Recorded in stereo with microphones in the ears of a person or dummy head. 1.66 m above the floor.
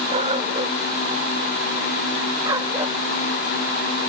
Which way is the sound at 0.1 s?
40° right (ahead or behind).